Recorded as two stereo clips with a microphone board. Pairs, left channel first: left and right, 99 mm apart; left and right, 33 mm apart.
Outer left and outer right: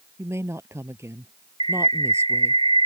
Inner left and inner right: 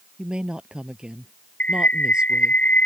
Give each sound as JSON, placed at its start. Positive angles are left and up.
{"t": 0.2, "sound": "a woman speaking", "side_deg": -25}
{"t": 1.6, "sound": "a bird", "side_deg": 60}